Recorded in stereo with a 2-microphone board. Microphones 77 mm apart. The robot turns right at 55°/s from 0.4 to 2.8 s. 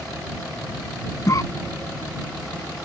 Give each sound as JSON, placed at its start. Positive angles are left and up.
{"t": 1.3, "sound": "a cough", "side_deg": 45}